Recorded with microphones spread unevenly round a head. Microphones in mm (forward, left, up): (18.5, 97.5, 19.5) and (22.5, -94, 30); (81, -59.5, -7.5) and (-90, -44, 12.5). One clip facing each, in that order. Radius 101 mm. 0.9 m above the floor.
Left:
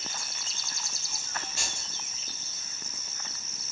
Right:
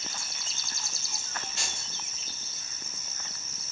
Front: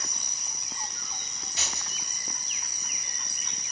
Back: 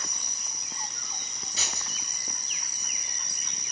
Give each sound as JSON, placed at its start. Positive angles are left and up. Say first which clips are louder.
{"t": 1.6, "sound": "keys jangling", "louder": "even, even", "azimuth_deg": 170, "distance_m": 1.2}